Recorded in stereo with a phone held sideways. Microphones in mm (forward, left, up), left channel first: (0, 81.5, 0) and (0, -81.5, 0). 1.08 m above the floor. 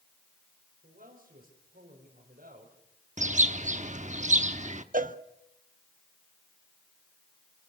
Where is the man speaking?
65° right (ahead or behind), 5 m.